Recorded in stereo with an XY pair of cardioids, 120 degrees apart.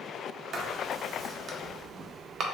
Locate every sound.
0.5 s writing: 50° right, 0.5 m